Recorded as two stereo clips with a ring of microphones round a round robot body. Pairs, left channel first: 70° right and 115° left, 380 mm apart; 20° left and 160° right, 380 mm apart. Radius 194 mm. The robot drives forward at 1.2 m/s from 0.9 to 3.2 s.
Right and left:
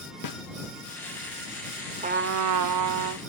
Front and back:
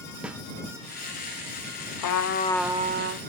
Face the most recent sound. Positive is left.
turn(degrees=150)